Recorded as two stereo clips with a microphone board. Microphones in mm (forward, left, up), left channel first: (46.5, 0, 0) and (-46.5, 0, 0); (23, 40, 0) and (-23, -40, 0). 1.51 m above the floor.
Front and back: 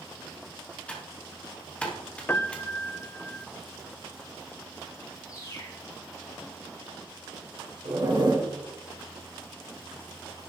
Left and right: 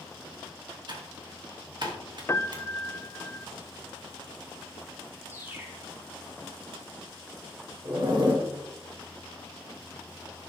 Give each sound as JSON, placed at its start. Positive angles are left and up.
{"t": 0.9, "sound": "typing on a keyboard", "azimuth_deg": -80, "distance_m": 2.5}
{"t": 2.3, "sound": "a piano", "azimuth_deg": 35, "distance_m": 0.5}
{"t": 5.3, "sound": "a bird", "azimuth_deg": -50, "distance_m": 2.5}
{"t": 7.8, "sound": "a zipper", "azimuth_deg": -150, "distance_m": 3.0}